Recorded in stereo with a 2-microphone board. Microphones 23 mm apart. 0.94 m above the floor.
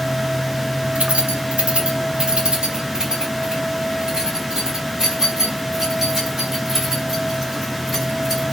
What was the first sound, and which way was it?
Keys jangling, 80° right.